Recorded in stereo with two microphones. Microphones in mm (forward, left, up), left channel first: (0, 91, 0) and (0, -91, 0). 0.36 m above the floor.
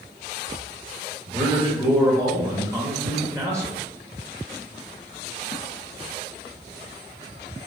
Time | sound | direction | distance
1.3 | a man speaking | 15° right (ahead or behind) | 0.8 m